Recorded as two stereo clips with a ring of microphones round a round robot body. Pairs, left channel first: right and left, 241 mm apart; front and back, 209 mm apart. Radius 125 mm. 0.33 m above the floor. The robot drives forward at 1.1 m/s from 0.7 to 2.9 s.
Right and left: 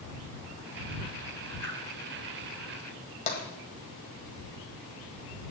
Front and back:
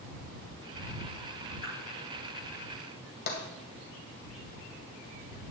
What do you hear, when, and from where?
1.6 s a whoosh: 10° right, 3.5 m
3.3 s tapping: 35° right, 1.8 m